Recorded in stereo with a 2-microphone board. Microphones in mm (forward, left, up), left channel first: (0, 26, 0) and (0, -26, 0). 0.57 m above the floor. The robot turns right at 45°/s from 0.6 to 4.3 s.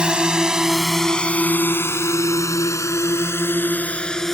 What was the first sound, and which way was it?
A drone, 20° right (ahead or behind).